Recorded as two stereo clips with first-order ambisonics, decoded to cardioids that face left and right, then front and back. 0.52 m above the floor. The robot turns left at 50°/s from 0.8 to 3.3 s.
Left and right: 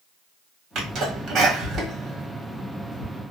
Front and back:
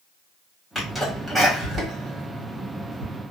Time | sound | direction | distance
0.8 | a sneeze | 75° right | 1.2 m